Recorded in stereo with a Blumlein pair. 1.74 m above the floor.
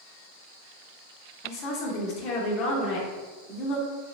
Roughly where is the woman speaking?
Ahead left.